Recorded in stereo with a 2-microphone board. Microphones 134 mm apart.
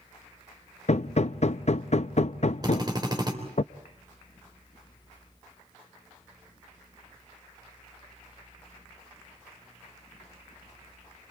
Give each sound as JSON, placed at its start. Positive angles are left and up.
{"t": 0.9, "sound": "hammering", "side_deg": 55, "distance_m": 0.5}
{"t": 2.6, "sound": "a drill", "side_deg": -30, "distance_m": 3.5}